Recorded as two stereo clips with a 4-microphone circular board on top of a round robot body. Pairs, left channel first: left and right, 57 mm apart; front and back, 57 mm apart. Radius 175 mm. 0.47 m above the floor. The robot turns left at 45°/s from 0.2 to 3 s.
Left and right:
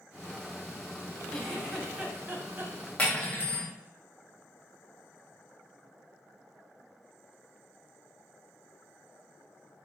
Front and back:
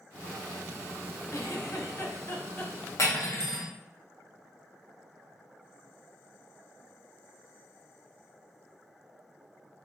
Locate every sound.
1.3 s a giggle: 15° left, 0.9 m; by 2.8 s 50° right, 0.9 m
3.0 s cutlery clinking: 25° left, 0.9 m